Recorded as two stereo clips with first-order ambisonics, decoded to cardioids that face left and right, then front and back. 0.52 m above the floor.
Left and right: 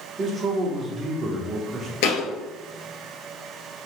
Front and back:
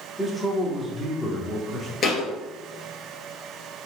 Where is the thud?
70° left, 1.6 m.